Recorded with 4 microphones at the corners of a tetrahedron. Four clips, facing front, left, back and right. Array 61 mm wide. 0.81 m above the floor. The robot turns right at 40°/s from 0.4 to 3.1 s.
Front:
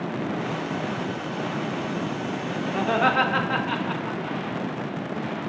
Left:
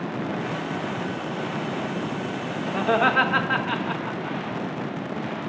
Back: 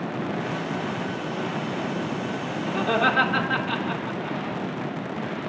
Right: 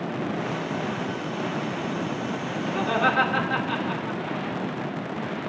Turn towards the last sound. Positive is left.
turn(degrees=75)